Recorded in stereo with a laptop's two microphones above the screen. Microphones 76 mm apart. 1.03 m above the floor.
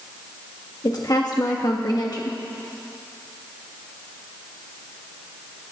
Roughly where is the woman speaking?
Left.